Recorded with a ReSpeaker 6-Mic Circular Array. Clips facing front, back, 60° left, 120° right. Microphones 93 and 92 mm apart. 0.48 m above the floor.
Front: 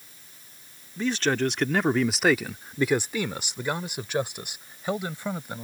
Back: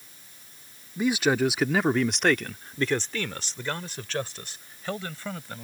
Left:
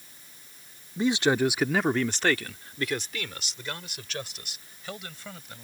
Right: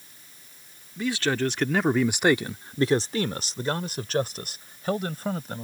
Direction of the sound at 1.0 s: 110° left.